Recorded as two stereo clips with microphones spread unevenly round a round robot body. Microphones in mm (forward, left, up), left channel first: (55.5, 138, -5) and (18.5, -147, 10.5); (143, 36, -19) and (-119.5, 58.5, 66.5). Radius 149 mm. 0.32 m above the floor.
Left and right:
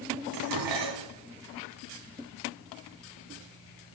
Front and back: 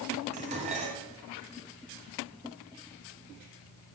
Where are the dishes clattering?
110° right, 2.0 m.